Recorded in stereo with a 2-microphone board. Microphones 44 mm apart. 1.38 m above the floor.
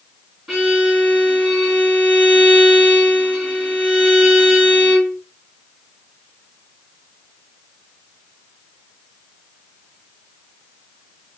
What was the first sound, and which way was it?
A violin, 15° right (ahead or behind).